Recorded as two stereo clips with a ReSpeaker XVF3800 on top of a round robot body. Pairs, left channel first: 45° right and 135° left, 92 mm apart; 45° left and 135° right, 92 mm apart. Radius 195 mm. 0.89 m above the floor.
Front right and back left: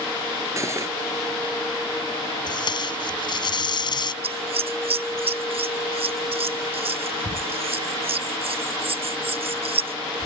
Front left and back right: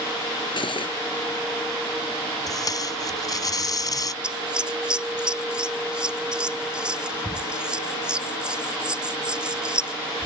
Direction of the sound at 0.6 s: 75° left.